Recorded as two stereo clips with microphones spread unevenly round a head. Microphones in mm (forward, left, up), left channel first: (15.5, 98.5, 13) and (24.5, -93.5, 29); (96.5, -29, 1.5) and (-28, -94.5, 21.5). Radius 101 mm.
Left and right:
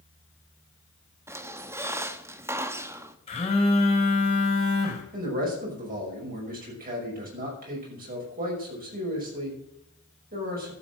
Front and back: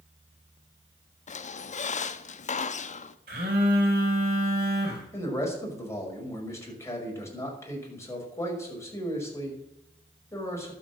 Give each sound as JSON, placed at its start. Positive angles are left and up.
{"t": 1.3, "sound": "a squeak", "azimuth_deg": -10, "distance_m": 0.8}
{"t": 3.3, "sound": "a phone buzzing", "azimuth_deg": 155, "distance_m": 4.0}
{"t": 5.1, "sound": "a man speaking", "azimuth_deg": -40, "distance_m": 5.5}